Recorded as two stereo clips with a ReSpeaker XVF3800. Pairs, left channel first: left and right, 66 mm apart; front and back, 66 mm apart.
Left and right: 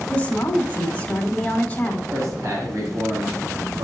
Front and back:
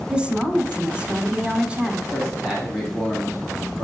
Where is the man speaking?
100° right, 1.9 m.